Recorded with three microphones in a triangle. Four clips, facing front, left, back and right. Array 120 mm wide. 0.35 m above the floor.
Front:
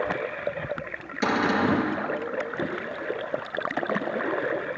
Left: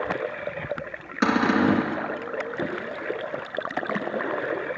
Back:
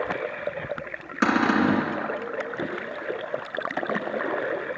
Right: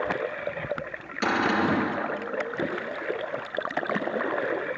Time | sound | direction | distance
1.2 | a cupboard door | 155° left | 2.5 m